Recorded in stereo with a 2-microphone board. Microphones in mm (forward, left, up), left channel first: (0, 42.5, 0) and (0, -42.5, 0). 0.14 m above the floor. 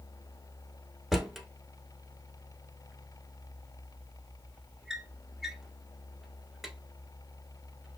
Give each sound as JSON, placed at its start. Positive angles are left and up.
{"t": 1.1, "sound": "a drawer", "side_deg": -5, "distance_m": 0.9}